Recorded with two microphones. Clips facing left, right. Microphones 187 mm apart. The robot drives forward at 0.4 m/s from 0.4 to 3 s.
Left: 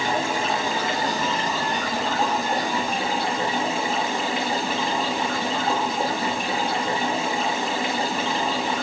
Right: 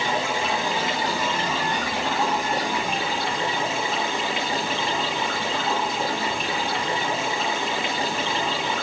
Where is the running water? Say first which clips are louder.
Left 1 dB; 45° left (ahead or behind), 4 m; by 8.8 s 35° left (ahead or behind), 4.5 m.